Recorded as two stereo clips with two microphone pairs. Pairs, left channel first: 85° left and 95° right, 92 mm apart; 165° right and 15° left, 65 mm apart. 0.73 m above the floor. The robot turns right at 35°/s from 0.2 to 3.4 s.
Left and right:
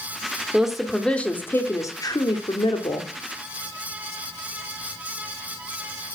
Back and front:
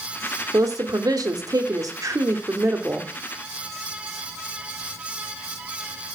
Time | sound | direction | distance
0.5 | a woman speaking | 10° right | 1.5 m